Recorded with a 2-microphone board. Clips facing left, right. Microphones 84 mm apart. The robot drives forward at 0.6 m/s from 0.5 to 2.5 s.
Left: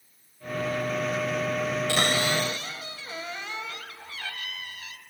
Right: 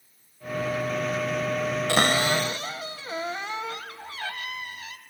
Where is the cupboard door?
55° right (ahead or behind), 0.5 m; by 5.0 s 35° right (ahead or behind), 0.7 m.